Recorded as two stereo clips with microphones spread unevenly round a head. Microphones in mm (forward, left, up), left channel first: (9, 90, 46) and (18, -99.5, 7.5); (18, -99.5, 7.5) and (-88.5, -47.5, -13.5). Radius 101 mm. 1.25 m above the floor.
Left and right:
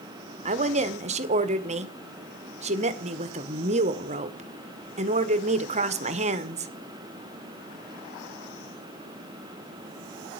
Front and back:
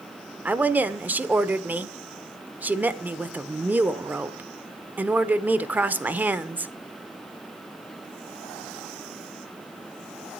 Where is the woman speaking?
135° right, 1.2 m.